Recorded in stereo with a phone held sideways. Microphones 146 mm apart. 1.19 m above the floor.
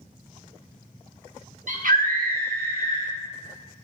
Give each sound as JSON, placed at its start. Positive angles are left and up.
{"t": 1.7, "sound": "a scream", "side_deg": -55, "distance_m": 0.7}